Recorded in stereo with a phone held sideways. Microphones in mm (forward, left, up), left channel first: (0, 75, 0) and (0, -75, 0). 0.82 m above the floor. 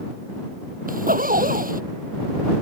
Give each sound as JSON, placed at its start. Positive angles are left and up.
{"t": 0.9, "sound": "a zipper", "side_deg": -65}